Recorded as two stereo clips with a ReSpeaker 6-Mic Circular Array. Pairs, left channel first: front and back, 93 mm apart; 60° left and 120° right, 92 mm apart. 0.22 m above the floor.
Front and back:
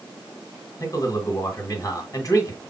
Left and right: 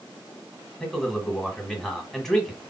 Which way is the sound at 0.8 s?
25° right.